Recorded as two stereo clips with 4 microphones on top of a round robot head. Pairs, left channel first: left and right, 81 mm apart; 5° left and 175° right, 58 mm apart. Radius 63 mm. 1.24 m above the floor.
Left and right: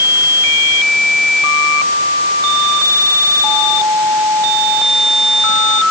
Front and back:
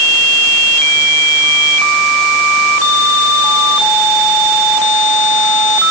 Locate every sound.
Only background noise.